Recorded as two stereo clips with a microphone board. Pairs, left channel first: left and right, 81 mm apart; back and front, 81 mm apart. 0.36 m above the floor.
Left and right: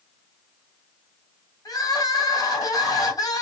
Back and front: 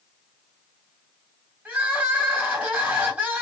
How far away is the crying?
About 2.5 m.